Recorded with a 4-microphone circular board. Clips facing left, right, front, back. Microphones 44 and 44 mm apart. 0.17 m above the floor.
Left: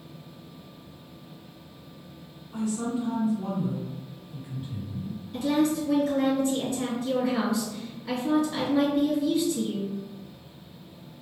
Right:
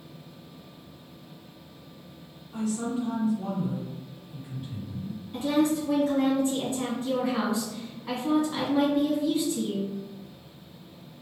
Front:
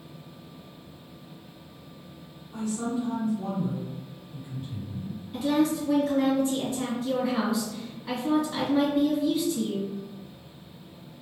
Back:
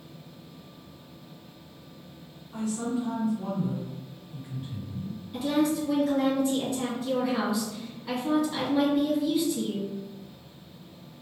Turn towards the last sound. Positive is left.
turn(degrees=-95)